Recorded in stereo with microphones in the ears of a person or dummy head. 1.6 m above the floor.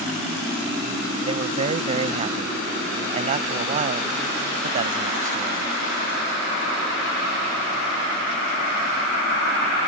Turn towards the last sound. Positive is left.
turn(degrees=-35)  # may be behind; listen again after turning